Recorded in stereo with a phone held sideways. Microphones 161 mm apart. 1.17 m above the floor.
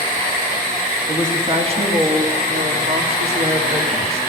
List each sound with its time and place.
1.1 s a woman speaking: 15° right (ahead or behind), 1.9 m; by 4.2 s 85° right, 4 m